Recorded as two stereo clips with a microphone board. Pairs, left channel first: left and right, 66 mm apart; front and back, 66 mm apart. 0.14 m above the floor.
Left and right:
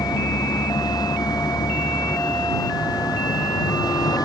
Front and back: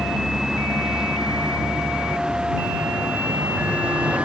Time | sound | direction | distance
0.0 | a vehicle | 95° left | ?